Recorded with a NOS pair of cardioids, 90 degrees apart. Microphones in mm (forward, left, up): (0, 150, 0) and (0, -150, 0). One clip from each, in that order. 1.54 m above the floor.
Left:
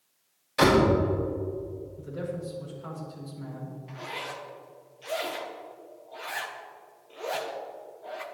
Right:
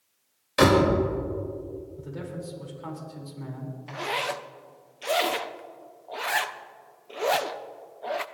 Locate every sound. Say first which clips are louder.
0.6 s a door slam: right 1 dB; 40° right, 5 m
2.0 s a man speaking: left 3 dB; 50° right, 5 m
3.9 s a zipper: right 8 dB; 50° right, 0.8 m